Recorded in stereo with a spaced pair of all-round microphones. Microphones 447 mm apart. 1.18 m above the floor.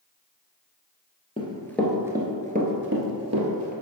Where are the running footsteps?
15° left (ahead or behind), 1.4 m; by 3.7 s 40° right (ahead or behind), 1.6 m.